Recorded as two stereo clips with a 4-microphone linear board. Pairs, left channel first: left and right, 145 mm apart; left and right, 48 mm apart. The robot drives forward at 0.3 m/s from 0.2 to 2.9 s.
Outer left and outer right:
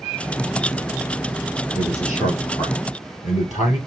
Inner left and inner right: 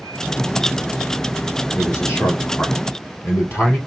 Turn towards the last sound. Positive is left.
turn(degrees=55)  # may be behind; listen again after turning